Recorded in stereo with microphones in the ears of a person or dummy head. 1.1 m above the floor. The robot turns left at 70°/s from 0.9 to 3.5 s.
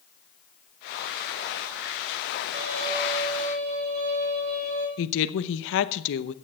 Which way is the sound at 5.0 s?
65° left (ahead or behind).